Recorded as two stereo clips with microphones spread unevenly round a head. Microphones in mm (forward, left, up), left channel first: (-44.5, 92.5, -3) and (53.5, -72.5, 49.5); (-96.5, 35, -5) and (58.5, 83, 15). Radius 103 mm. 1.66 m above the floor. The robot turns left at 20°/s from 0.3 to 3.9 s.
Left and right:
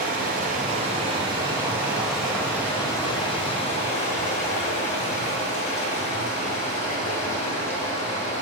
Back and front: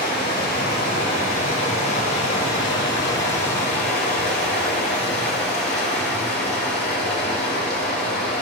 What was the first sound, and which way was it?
Running water, 110° right.